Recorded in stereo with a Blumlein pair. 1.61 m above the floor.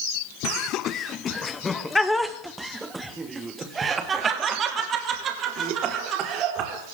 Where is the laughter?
40° left, 1.5 m; by 6.8 s 35° right, 4 m.